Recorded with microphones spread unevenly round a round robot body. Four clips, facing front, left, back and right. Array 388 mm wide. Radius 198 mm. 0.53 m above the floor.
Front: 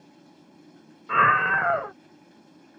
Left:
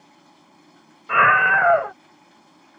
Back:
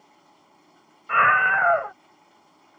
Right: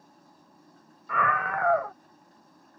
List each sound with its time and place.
0.0 s running water: 15° left
1.1 s a scream: 30° left